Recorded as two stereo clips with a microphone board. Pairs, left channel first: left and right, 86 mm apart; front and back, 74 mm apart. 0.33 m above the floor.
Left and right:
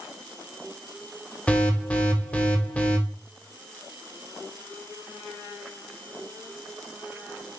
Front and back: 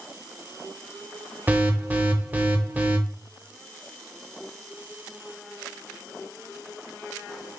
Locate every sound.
1.5 s an alarm: 150° left, 0.5 m